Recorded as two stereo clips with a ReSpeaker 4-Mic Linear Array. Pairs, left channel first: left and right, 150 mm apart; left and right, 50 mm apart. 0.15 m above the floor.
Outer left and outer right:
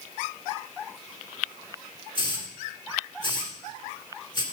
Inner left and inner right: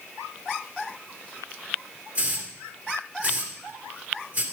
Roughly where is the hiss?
Right.